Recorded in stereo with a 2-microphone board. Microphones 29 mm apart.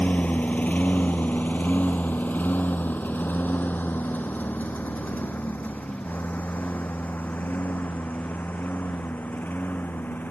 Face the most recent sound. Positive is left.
turn(degrees=70)  # may be behind; listen again after turning